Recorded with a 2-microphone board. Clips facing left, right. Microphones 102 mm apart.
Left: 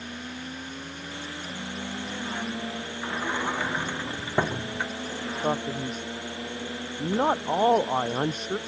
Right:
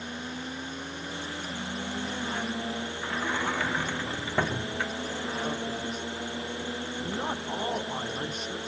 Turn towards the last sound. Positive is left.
turn(degrees=45)  # may be behind; listen again after turning